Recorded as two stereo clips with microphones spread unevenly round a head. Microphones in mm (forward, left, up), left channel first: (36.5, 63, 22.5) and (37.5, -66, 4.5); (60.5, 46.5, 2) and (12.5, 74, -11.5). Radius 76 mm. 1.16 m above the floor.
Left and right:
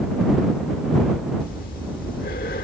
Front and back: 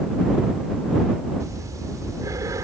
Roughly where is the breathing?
Behind left.